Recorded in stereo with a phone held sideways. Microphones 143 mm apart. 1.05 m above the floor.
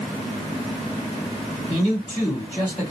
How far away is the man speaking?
About 3 m.